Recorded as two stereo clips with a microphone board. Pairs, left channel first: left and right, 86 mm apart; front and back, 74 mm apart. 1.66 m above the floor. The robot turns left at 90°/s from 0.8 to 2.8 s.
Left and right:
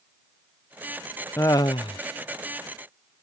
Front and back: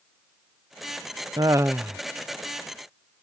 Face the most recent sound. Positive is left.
turn(degrees=25)